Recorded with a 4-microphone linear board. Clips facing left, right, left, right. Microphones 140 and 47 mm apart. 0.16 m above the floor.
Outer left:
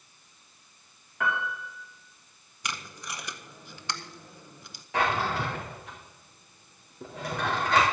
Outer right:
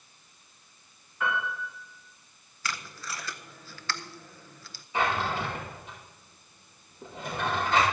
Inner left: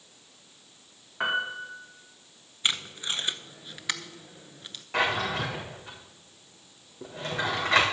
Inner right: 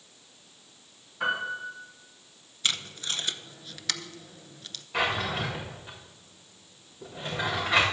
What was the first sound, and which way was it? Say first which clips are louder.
A piano: even, inner left 1 dB; 85° left.